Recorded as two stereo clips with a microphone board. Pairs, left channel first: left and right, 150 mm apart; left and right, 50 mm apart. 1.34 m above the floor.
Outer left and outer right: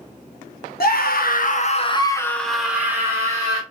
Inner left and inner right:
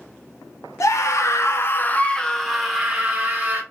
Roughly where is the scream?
Left.